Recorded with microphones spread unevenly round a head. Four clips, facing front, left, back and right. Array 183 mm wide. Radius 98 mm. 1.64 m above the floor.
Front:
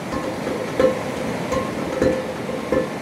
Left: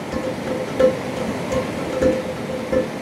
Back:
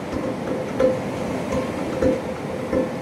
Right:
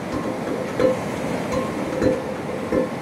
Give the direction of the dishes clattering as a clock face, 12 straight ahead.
12 o'clock.